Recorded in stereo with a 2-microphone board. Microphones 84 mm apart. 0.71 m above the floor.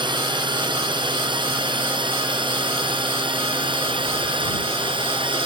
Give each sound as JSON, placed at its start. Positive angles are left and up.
{"t": 0.0, "sound": "a drone", "side_deg": -65}